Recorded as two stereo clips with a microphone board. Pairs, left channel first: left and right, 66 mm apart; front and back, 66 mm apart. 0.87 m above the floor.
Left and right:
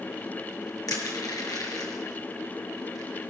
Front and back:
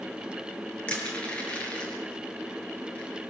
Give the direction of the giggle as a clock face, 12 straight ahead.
No giggle in this recording.